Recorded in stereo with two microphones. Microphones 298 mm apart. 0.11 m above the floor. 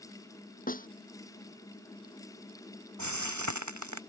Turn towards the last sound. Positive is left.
turn(degrees=-70)  # may be behind; listen again after turning